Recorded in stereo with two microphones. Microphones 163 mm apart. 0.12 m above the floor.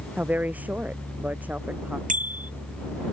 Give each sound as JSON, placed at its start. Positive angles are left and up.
{"t": 0.2, "sound": "a woman speaking", "side_deg": -10}
{"t": 2.1, "sound": "a bicycle bell", "side_deg": -50}